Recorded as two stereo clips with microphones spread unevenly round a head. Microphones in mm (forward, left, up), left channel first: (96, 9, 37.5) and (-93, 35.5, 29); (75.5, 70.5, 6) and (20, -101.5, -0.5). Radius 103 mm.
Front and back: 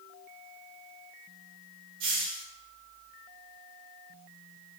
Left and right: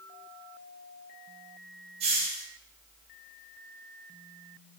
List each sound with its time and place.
2.0 s a hiss: 165° right, 1.3 m